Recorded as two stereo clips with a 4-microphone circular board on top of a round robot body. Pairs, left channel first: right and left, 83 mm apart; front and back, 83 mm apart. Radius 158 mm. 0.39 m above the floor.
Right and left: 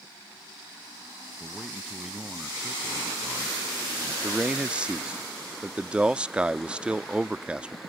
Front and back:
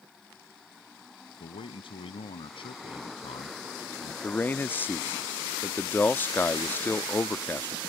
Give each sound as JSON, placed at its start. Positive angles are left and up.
{"t": 1.4, "sound": "a man speaking", "azimuth_deg": 10}
{"t": 4.2, "sound": "a man speaking", "azimuth_deg": 30}